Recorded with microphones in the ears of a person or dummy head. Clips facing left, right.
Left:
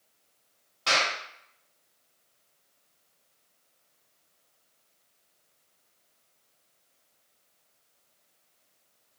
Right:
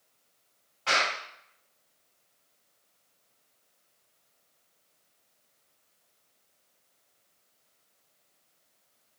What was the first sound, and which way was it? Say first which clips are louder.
A clap: left 1 dB; 55° left (ahead or behind).